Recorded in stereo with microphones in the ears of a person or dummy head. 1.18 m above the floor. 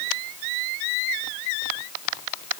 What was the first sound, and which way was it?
Only background noise.